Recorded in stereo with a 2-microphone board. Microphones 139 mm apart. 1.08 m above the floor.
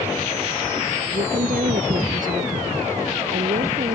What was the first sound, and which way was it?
A woman speaking, 80° right.